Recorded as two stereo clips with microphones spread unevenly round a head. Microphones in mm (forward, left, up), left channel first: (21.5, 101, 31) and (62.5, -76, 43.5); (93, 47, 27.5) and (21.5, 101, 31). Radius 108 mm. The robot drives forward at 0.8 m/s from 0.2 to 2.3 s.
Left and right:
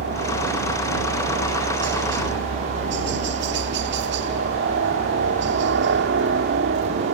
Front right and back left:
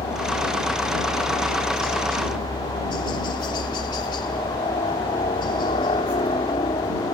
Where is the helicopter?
75° right; by 7.2 s 80° right.